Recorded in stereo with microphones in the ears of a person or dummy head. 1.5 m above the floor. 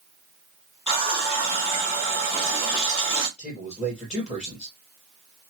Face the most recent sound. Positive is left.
turn(degrees=0)  # may be behind; listen again after turning